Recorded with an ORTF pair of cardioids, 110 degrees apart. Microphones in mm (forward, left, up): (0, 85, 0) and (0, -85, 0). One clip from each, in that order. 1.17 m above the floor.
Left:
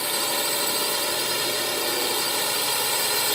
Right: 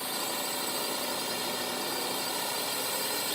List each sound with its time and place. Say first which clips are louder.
0.0 s a drone: left 8 dB; 55° left